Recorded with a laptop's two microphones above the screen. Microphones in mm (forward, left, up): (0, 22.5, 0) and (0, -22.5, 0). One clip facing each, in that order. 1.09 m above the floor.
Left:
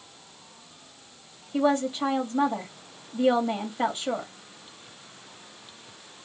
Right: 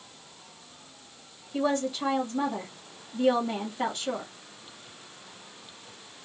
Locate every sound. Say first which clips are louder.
1.5 s a woman speaking: left 3 dB; 20° left (ahead or behind), 2.5 m